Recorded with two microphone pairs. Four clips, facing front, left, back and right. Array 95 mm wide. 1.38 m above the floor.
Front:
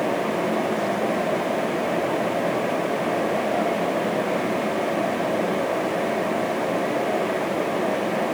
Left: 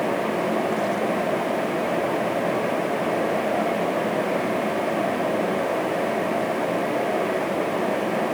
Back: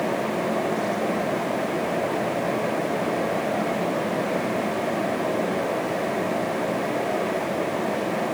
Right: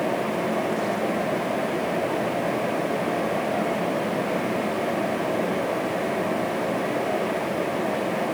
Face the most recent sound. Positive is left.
No sound to turn to.